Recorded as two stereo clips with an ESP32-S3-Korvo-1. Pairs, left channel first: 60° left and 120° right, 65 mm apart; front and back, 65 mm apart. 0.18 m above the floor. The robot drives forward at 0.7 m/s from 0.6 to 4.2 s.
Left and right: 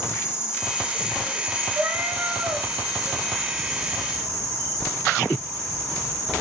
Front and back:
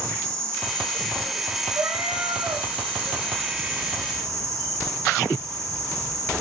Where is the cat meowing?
165° right, 1.0 m; by 2.7 s 170° right, 1.6 m.